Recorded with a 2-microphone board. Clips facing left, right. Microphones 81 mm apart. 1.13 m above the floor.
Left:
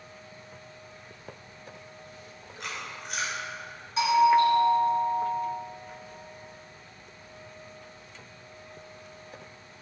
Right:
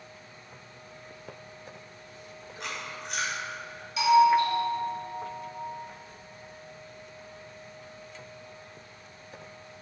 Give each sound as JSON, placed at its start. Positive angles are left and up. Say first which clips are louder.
{"t": 2.6, "sound": "chewing", "louder": "even", "side_deg": 0, "distance_m": 2.5}
{"t": 4.0, "sound": "a doorbell", "louder": "even", "side_deg": 35, "distance_m": 2.5}